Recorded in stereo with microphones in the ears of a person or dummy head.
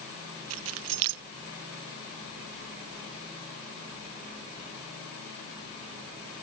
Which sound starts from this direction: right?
Keys jangling, at 0.5 s.